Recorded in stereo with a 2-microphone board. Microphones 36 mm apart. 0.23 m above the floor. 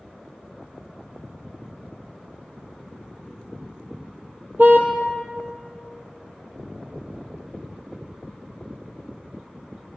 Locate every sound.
4.6 s a car horn: 55° right (ahead or behind), 2.5 m